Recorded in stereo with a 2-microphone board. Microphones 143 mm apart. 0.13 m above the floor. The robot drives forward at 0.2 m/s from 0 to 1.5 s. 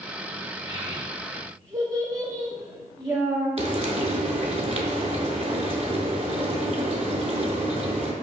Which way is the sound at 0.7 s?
25° right (ahead or behind).